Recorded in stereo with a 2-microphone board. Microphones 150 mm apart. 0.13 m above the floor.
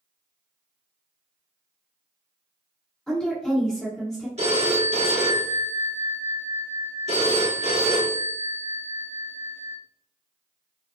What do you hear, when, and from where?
3.1 s a woman speaking: 5° left (ahead or behind), 1.5 m
4.4 s a phone ringing: 50° right (ahead or behind), 1.0 m